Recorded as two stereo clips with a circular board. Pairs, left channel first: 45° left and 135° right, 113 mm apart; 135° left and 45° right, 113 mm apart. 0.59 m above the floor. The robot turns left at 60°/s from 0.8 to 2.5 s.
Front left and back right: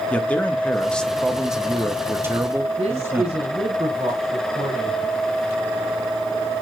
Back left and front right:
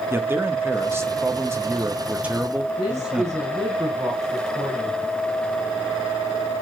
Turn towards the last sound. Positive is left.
turn(degrees=-115)